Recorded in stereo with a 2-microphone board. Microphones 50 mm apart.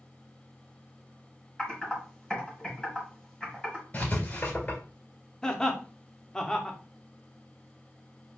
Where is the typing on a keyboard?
15° left (ahead or behind), 1.7 m.